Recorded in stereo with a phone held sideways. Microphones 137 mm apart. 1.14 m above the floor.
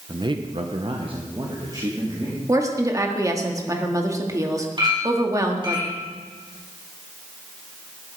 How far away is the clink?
About 7.5 m.